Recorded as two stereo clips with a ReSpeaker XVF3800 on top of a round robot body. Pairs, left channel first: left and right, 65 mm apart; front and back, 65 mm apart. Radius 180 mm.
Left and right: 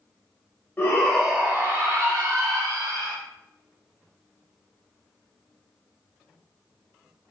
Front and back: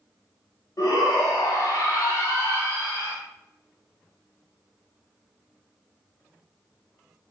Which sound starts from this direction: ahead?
A shout, at 0.8 s.